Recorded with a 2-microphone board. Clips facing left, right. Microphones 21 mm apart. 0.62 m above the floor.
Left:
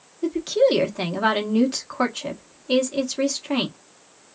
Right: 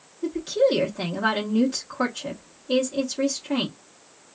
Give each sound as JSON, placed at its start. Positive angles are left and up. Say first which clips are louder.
{"t": 0.2, "sound": "a woman speaking", "louder": "left 2 dB", "side_deg": 35, "distance_m": 1.1}